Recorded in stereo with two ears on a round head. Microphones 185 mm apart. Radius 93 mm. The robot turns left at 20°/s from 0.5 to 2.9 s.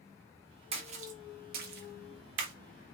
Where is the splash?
30° right (ahead or behind), 0.5 m; by 2.5 s 65° right (ahead or behind), 0.5 m.